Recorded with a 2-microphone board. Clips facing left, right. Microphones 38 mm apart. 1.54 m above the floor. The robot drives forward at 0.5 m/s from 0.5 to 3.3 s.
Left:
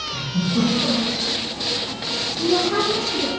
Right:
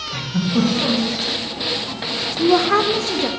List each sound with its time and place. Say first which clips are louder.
0.1 s a giggle: right 3 dB; 60° right (ahead or behind), 1.3 m; by 1.2 s 50° right (ahead or behind), 1.4 m
2.4 s a woman speaking: right 5 dB; 70° right (ahead or behind), 0.6 m; by 3.3 s 40° right (ahead or behind), 0.8 m